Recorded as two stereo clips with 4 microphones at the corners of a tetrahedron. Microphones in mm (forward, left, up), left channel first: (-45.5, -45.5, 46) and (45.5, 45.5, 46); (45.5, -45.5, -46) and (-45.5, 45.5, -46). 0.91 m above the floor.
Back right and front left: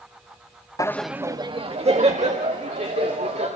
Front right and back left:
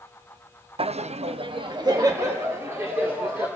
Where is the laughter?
165° left, 0.6 m; by 3.5 s 60° left, 2.5 m.